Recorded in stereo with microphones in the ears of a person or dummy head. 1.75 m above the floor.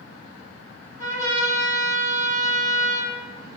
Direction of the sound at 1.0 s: 20° right (ahead or behind).